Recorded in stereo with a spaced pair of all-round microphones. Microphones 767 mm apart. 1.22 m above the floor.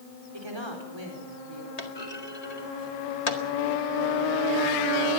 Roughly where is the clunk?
Left.